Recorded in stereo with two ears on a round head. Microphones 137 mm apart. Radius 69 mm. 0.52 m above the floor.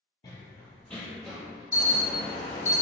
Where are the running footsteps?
25° left (ahead or behind), 0.5 m; by 1.6 s 5° right (ahead or behind), 0.9 m.